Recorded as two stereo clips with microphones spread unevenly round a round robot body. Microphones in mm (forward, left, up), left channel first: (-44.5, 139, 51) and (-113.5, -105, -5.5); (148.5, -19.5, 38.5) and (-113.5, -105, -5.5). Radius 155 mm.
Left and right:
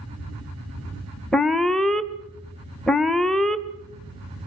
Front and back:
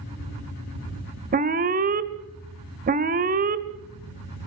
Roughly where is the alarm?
Behind.